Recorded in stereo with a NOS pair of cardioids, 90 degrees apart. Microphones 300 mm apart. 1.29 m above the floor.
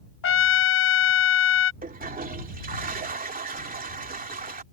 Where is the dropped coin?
No dropped coin in this recording.